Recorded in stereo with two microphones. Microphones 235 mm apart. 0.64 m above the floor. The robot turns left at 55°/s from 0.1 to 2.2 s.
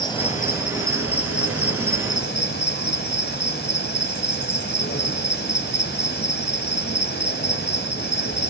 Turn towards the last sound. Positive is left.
turn(degrees=45)